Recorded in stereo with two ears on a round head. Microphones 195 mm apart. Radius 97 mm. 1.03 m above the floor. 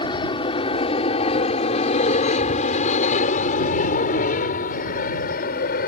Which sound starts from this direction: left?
An aircraft, at 0.0 s.